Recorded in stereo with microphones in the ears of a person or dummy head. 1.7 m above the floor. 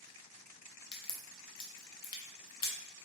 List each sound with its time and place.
0.9 s a crack: 25° left (ahead or behind), 0.6 m